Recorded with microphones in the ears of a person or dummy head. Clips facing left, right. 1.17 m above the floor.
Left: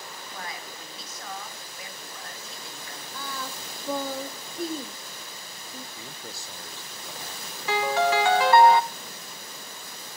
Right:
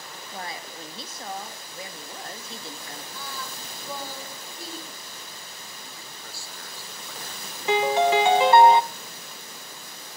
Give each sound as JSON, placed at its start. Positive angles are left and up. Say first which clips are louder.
{"t": 0.3, "sound": "a woman speaking", "louder": "right 4 dB", "side_deg": -30, "distance_m": 2.0}
{"t": 3.1, "sound": "singing", "louder": "left 5 dB", "side_deg": 45, "distance_m": 1.4}
{"t": 6.0, "sound": "a man speaking", "louder": "left 3 dB", "side_deg": 15, "distance_m": 1.1}
{"t": 7.7, "sound": "a piano", "louder": "right 3 dB", "side_deg": -15, "distance_m": 0.6}